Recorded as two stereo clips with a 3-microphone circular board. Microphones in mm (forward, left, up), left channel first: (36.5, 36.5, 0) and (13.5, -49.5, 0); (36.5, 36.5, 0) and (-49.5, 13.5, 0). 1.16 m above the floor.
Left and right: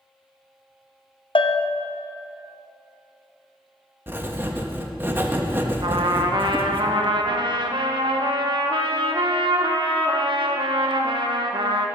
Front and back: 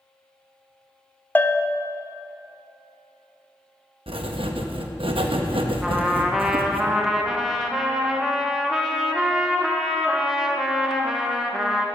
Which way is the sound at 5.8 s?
80° right.